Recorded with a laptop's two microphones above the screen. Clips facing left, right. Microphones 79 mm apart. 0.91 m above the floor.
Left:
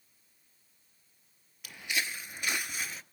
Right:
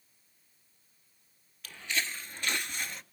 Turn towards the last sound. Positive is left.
turn(degrees=5)  # may be behind; listen again after turning